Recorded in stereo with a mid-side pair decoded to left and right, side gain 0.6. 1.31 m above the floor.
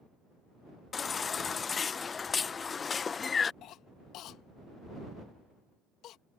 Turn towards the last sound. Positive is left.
turn(degrees=60)